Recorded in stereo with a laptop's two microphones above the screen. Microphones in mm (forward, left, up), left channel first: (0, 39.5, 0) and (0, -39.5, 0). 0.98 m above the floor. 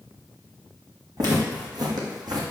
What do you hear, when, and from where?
1.2 s footsteps: 55° right (ahead or behind), 2 m; by 2.4 s 60° right (ahead or behind), 2.0 m